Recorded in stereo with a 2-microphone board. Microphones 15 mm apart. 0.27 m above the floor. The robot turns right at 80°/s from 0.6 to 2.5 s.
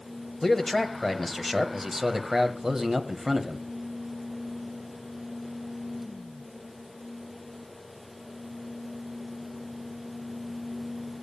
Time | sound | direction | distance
0.4 | a man speaking | 25° left (ahead or behind) | 1.3 m